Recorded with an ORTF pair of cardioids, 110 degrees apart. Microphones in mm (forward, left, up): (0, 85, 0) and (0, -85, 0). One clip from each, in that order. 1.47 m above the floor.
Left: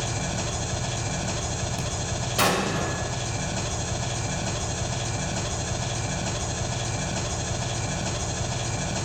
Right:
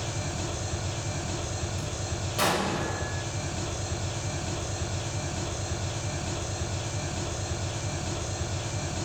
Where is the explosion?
35° left, 1.9 m.